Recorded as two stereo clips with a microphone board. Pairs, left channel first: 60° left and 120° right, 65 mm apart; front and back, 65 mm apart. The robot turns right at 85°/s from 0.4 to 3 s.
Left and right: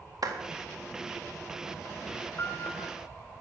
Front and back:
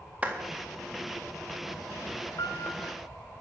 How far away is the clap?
About 1.8 m.